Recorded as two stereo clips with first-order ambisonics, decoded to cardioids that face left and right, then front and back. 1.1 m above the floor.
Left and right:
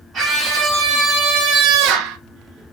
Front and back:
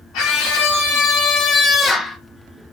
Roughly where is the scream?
Ahead right.